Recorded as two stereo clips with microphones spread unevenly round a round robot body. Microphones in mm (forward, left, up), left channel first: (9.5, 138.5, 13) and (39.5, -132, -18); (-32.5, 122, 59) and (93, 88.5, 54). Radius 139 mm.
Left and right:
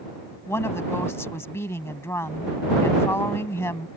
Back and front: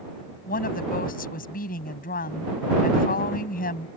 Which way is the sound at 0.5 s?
175° left.